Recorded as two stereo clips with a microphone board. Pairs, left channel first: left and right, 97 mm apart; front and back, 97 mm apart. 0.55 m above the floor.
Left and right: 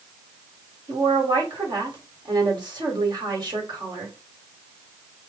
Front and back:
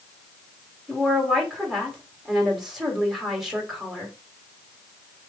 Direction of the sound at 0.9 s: 95° right.